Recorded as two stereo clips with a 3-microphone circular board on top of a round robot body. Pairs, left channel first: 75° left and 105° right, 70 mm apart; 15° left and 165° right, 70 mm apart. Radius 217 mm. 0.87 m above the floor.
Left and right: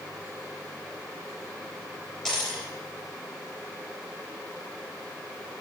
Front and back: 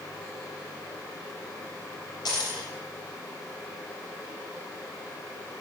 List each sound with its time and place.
2.2 s a dropped coin: 10° right, 3.5 m